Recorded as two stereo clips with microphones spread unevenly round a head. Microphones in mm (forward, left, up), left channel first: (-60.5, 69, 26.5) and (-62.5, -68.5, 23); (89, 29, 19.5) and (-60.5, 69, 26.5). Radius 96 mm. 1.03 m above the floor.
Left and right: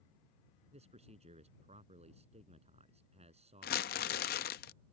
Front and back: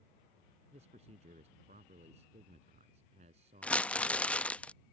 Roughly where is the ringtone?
I don't hear a ringtone.